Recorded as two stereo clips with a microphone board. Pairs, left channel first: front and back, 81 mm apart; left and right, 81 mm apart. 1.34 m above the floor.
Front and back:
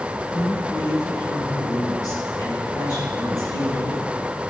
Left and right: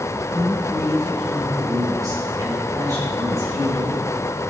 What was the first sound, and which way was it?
A woman speaking, 45° right.